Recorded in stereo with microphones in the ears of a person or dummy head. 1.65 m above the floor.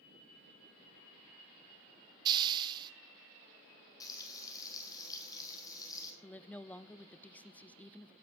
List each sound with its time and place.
2.2 s a hiss: 30° right (ahead or behind), 0.8 m
4.0 s frying: 20° left (ahead or behind), 4 m
6.2 s a woman speaking: 5° left (ahead or behind), 0.5 m